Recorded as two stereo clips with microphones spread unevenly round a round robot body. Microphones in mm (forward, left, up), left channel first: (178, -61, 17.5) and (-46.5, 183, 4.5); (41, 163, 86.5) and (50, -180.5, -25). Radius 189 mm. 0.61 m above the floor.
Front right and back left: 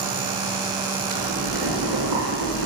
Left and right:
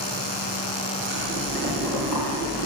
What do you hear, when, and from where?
1.1 s boiling: 170° left, 5 m